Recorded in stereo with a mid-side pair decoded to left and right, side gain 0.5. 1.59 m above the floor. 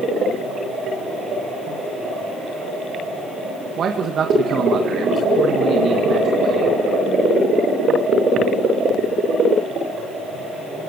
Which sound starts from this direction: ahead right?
A man speaking, at 3.8 s.